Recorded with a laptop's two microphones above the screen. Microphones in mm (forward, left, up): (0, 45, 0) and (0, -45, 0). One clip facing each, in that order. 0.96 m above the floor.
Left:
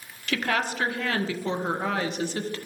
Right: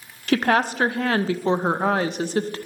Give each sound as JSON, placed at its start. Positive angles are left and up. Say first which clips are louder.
{"t": 0.3, "sound": "a woman speaking", "louder": "right 7 dB", "side_deg": -40, "distance_m": 0.5}